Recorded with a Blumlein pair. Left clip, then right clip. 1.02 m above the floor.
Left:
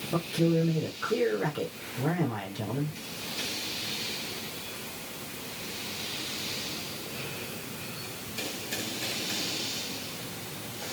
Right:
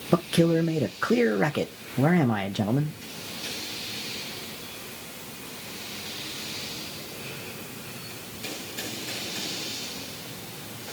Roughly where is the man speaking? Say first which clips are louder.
Right 5 dB; ahead right.